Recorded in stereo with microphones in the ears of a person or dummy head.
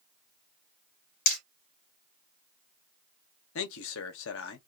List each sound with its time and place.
1.3 s hammering: 45° left (ahead or behind), 1.8 m
3.5 s a man speaking: 80° left, 1.0 m